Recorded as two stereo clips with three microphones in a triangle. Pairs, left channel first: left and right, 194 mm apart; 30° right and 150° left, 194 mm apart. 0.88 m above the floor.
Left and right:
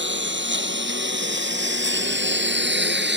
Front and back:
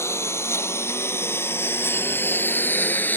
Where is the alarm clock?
No alarm clock in this recording.